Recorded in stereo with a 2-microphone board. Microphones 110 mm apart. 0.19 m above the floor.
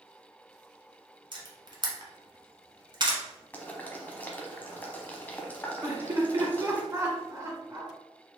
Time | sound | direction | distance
1.3 | a camera shutter | 45° right (ahead or behind) | 0.9 m
3.5 | boiling | 15° left (ahead or behind) | 0.7 m
5.8 | laughter | 30° right (ahead or behind) | 2.0 m